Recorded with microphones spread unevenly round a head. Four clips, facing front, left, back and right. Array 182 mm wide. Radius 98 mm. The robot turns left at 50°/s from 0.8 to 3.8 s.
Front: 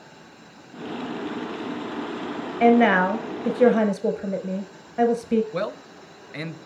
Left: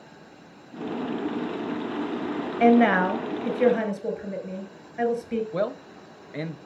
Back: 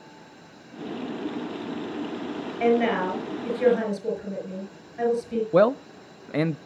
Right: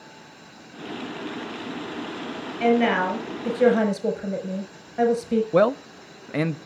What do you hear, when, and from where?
2.6 s a woman speaking: 35° left, 5 m; by 5.4 s 25° right, 5 m
5.5 s a man speaking: 125° right, 0.6 m